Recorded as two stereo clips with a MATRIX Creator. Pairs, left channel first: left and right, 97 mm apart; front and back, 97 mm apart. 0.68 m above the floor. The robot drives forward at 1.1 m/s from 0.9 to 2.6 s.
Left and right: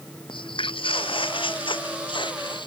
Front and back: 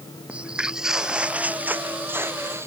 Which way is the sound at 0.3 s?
105° left.